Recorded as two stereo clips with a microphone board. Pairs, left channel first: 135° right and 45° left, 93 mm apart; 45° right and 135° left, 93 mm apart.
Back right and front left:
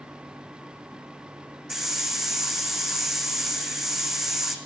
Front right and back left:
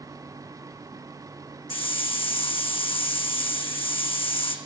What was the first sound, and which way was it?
A hiss, 40° right.